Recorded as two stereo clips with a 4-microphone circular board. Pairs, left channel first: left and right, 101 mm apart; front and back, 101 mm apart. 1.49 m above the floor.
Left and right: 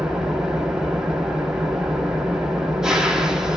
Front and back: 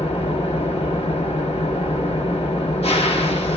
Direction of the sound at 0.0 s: 5° right.